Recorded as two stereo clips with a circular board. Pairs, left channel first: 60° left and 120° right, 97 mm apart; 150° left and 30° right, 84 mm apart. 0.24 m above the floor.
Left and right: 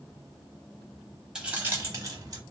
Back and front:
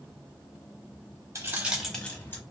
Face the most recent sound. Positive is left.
turn(degrees=-155)